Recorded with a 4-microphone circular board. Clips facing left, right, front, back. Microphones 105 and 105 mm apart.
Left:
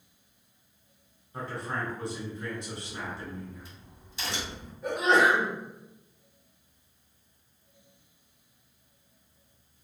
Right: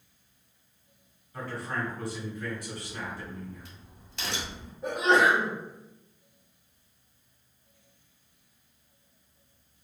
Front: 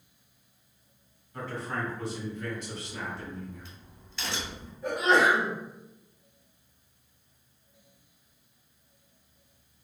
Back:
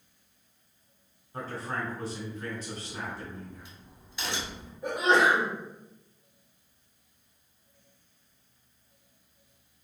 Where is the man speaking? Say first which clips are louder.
Even, even; 145° left, 1.4 m.